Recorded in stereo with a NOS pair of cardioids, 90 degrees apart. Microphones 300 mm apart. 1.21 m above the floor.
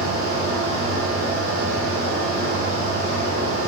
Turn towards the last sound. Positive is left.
turn(degrees=-50)